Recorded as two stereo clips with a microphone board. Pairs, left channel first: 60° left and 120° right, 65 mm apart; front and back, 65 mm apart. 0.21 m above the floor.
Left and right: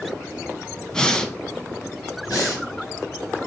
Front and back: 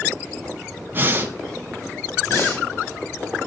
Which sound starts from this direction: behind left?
Breathing, at 0.9 s.